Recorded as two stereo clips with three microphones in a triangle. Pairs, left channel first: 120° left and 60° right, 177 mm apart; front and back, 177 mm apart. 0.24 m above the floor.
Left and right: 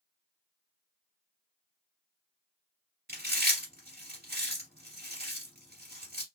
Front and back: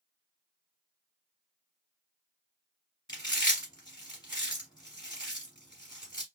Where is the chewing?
65° right, 1.2 m.